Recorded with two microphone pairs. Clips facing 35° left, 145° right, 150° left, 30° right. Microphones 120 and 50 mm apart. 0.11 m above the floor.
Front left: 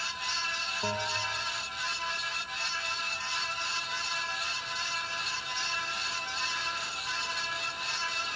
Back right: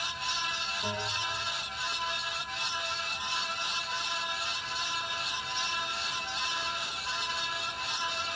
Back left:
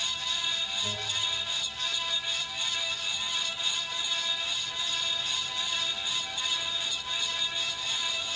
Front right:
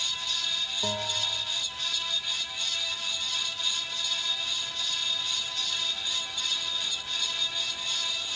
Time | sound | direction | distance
0.8 | a bell | 30° right | 5.5 m